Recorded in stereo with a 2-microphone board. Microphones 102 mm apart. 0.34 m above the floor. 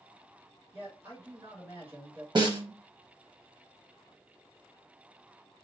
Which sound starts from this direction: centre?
A man speaking, at 0.7 s.